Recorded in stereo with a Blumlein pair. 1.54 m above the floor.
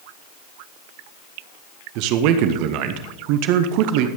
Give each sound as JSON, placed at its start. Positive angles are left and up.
{"t": 1.9, "sound": "a man speaking", "azimuth_deg": -45, "distance_m": 0.9}